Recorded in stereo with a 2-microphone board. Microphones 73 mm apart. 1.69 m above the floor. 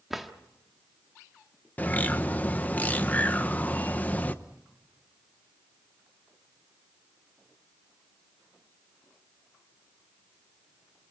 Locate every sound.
0.1 s a drawer: centre (ahead or behind), 1.3 m
1.8 s a bird: 25° left (ahead or behind), 0.9 m